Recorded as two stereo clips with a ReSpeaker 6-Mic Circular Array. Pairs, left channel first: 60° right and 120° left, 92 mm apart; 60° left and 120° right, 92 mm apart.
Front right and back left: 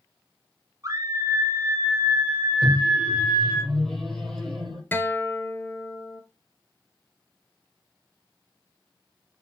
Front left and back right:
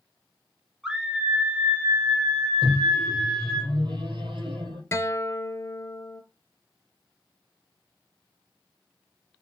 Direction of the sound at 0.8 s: 160° left.